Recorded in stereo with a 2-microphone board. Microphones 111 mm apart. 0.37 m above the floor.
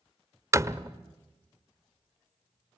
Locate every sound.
0.5 s a door slam: 25° right (ahead or behind), 0.6 m